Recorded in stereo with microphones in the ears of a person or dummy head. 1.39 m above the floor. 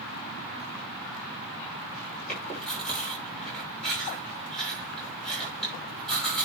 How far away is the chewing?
About 6 m.